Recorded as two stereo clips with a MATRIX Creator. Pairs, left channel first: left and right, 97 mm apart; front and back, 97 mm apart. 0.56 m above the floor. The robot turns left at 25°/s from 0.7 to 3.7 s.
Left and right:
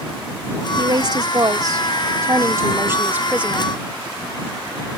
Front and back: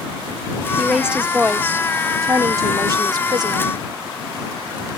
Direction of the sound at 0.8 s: 95° right.